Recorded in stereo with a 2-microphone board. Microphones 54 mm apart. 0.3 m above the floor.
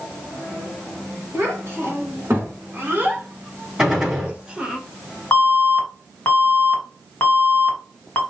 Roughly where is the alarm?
Left.